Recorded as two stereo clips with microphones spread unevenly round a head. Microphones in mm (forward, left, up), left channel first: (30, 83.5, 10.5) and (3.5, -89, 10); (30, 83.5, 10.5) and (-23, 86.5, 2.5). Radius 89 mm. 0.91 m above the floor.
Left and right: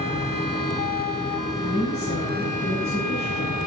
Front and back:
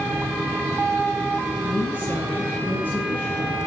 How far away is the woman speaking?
About 8.5 m.